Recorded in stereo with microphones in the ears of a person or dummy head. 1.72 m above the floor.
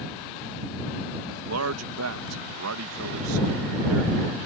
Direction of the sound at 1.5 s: 75° right (ahead or behind).